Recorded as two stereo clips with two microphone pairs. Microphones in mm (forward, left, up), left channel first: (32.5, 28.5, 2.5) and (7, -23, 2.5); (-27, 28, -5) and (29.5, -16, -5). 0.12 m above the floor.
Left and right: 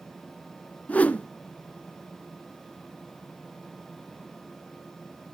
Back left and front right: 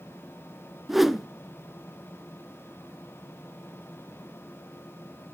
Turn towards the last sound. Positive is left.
turn(degrees=45)